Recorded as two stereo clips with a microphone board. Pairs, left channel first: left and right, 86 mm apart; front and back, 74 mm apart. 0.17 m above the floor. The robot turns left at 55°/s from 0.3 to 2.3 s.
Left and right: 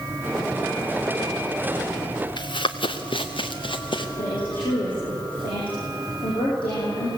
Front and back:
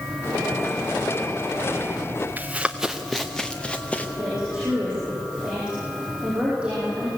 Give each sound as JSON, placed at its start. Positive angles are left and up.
{"t": 2.4, "sound": "running footsteps", "azimuth_deg": 115, "distance_m": 1.3}
{"t": 4.2, "sound": "a woman speaking", "azimuth_deg": 105, "distance_m": 7.0}